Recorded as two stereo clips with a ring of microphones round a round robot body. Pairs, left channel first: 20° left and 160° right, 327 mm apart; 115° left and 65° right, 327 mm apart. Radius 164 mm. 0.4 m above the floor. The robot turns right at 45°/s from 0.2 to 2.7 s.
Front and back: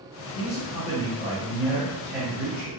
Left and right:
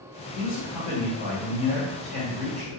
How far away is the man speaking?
About 1.4 m.